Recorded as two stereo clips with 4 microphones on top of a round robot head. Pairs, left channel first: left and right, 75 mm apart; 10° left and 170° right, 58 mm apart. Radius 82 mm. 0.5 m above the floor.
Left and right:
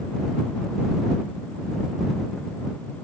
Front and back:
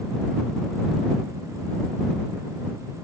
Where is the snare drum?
I don't hear a snare drum.